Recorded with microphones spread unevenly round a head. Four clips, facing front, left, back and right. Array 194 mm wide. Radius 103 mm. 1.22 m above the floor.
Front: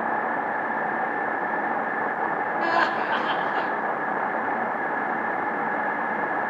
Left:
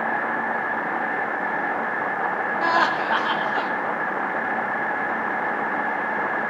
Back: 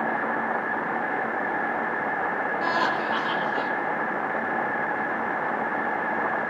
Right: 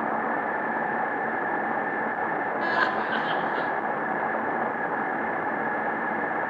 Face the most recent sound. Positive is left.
turn(degrees=50)